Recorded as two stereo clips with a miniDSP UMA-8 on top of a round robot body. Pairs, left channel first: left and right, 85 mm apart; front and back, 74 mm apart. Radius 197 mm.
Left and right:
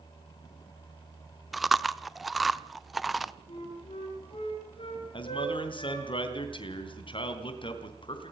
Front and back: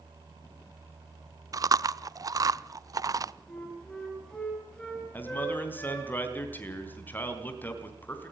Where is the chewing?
Straight behind, 1.0 m.